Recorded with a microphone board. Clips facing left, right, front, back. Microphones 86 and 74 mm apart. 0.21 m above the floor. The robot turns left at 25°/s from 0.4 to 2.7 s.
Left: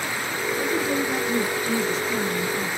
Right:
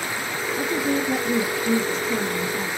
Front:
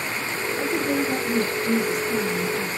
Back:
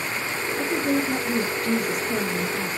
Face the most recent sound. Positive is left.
turn(degrees=-175)